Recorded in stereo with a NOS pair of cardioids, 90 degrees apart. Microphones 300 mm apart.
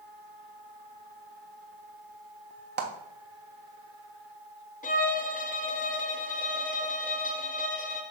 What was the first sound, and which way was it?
A clap, 35° right.